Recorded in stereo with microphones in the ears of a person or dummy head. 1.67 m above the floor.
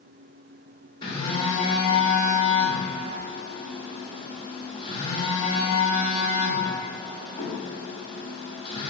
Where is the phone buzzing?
30° left (ahead or behind), 1.5 m.